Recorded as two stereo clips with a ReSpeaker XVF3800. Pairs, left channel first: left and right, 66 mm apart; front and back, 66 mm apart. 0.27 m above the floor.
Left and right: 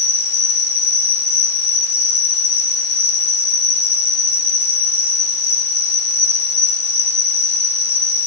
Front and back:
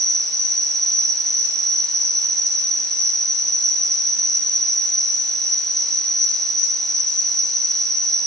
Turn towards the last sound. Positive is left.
turn(degrees=-80)